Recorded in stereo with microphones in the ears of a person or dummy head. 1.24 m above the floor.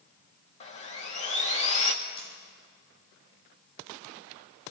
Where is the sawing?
30° left (ahead or behind), 1.4 m.